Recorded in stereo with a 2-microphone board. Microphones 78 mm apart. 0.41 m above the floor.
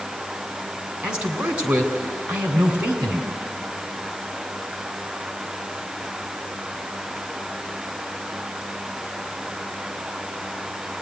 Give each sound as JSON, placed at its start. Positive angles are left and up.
{"t": 1.0, "sound": "a man speaking", "side_deg": -15, "distance_m": 3.0}